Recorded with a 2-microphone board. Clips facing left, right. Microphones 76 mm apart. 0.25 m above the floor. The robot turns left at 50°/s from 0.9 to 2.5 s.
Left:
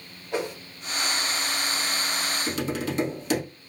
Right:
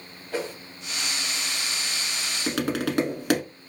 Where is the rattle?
No rattle in this recording.